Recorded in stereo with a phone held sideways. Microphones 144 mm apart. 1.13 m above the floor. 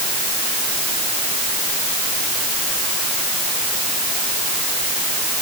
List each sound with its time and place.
Only background noise.